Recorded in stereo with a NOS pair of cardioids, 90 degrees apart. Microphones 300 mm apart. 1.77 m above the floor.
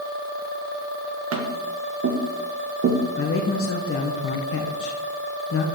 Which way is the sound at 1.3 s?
50° right.